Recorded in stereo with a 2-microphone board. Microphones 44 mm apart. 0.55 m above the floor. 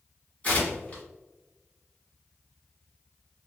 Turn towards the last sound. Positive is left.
turn(degrees=35)  # may be behind; listen again after turning